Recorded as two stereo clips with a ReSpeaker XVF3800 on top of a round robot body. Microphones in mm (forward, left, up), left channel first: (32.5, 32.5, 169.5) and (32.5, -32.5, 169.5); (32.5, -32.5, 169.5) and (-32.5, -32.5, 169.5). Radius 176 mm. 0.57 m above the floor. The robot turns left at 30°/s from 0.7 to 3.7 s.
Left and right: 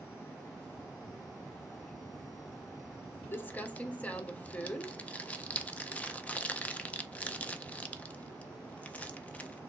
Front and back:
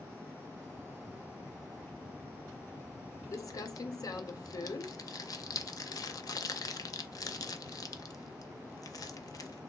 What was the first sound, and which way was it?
Crumpling, 30° left.